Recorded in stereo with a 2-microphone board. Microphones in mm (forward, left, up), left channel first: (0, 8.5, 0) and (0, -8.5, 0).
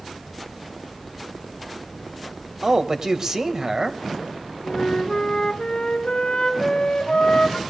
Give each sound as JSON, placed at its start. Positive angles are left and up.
{"t": 2.6, "sound": "a man speaking", "side_deg": -40, "distance_m": 1.8}
{"t": 4.6, "sound": "a flute", "side_deg": 60, "distance_m": 2.0}